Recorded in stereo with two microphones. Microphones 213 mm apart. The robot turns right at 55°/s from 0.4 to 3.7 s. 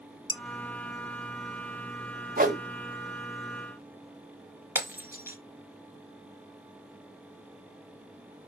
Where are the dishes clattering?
25° left (ahead or behind), 0.8 m; by 0.4 s 20° left (ahead or behind), 0.8 m.